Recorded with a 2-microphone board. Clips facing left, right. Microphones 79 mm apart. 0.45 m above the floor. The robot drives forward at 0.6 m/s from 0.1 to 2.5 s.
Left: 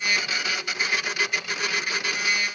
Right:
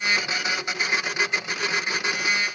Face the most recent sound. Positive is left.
No sound to turn to.